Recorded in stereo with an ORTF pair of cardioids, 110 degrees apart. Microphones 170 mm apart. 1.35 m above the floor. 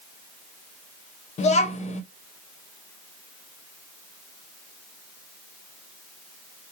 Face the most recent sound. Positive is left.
turn(degrees=40)